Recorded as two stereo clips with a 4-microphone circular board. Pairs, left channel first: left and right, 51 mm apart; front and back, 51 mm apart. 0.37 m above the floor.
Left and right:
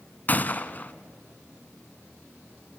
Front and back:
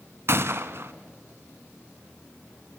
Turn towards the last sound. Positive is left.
turn(degrees=145)